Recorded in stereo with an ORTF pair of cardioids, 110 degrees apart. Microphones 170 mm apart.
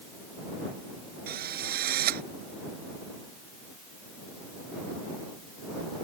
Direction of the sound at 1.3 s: 65° right.